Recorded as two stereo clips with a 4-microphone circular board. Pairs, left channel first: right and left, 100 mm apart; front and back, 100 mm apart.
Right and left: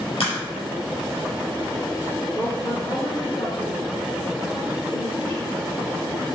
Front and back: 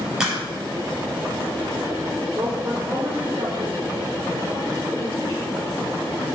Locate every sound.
0.2 s a crack: 95° right, 4.5 m
2.3 s a woman speaking: 130° right, 3 m